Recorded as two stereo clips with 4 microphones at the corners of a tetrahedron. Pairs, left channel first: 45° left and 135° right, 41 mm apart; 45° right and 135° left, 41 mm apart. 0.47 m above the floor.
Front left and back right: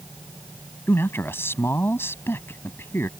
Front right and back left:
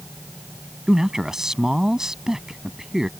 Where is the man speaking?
60° left.